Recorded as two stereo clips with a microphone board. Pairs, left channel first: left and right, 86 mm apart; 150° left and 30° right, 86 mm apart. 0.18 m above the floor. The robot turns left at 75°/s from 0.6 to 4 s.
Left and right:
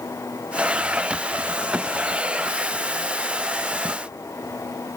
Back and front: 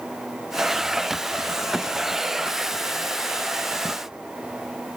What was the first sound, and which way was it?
Only background noise.